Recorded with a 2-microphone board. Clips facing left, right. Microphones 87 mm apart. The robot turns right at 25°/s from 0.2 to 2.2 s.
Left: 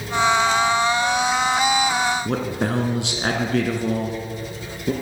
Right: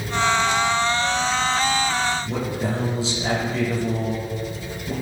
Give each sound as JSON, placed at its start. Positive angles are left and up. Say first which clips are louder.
{"t": 2.2, "sound": "a man speaking", "louder": "left 2 dB", "side_deg": 70, "distance_m": 3.5}